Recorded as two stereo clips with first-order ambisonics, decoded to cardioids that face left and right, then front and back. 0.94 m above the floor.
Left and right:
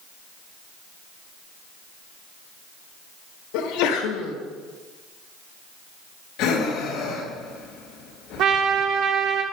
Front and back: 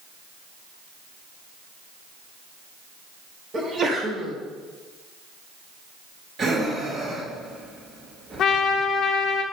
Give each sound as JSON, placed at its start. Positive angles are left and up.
{"t": 3.5, "sound": "a sneeze", "azimuth_deg": 110, "distance_m": 1.2}
{"t": 6.4, "sound": "breathing", "azimuth_deg": 115, "distance_m": 1.3}
{"t": 8.4, "sound": "a trumpet", "azimuth_deg": -50, "distance_m": 1.0}